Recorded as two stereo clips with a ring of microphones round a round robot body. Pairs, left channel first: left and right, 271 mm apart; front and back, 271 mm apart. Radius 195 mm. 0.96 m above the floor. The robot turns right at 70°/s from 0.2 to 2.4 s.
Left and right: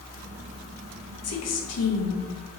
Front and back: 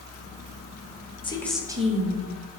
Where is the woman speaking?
70° left, 1.1 m; by 2.2 s 140° left, 1.1 m.